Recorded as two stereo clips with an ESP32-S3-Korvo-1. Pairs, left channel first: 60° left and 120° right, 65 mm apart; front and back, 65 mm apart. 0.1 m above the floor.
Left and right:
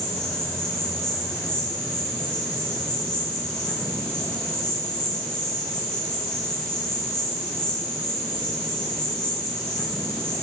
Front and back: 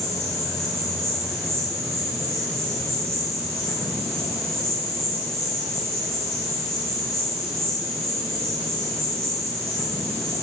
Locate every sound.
0.0 s an insect: 140° left, 6 m